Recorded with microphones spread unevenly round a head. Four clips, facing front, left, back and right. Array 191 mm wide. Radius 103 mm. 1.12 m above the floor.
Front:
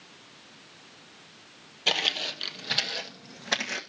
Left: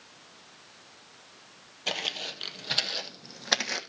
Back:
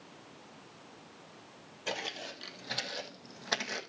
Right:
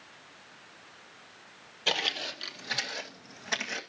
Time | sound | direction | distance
1.9 | footsteps | 5° right | 2 m